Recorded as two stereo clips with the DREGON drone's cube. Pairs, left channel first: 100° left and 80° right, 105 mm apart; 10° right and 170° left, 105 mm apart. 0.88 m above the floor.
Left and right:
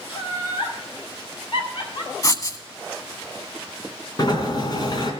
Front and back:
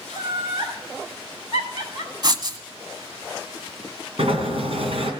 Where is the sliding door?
150° left, 2.5 m.